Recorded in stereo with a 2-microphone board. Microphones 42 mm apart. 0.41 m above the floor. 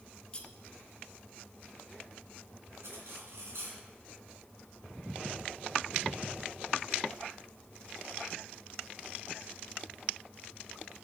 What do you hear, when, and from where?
0.3 s cutlery clinking: 25° left (ahead or behind), 1.0 m
2.8 s cutlery clinking: 80° right, 2.5 m